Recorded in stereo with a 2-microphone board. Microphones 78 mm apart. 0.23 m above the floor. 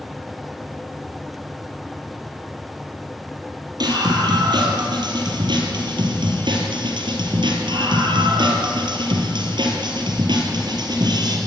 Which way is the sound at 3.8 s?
65° right (ahead or behind).